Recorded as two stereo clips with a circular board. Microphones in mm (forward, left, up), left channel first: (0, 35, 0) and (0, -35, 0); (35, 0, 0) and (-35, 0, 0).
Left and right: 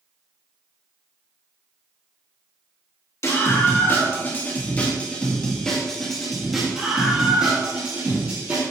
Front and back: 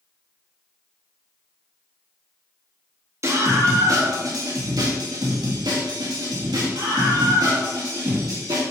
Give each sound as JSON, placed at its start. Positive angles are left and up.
{"t": 3.2, "sound": "a scream", "azimuth_deg": 135, "distance_m": 2.5}